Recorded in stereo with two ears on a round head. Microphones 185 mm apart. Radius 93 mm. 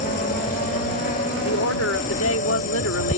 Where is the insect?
40° left (ahead or behind).